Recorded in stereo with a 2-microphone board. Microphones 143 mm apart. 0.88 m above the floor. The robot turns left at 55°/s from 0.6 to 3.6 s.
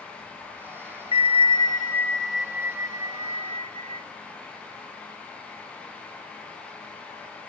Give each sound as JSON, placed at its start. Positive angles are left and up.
{"t": 1.1, "sound": "a bell", "azimuth_deg": 65, "distance_m": 0.7}